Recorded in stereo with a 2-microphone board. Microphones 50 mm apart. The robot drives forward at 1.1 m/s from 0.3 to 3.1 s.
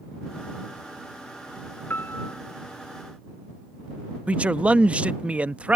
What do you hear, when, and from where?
1.9 s a piano: 40° left (ahead or behind)
4.3 s a man speaking: 25° right (ahead or behind)